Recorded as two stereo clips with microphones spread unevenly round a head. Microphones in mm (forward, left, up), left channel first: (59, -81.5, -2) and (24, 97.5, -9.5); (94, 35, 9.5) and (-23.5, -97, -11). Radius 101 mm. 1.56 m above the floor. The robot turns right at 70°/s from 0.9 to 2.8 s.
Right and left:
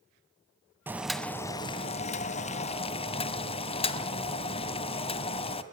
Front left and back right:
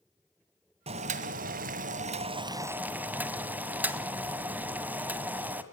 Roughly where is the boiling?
Behind.